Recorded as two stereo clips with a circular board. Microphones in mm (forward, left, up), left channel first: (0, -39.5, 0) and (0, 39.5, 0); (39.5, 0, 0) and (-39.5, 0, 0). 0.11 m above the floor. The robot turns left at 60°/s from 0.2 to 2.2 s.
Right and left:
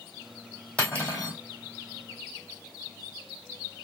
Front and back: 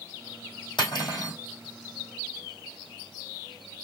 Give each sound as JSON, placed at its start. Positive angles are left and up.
{"t": 0.8, "sound": "cutlery clinking", "azimuth_deg": -15, "distance_m": 2.5}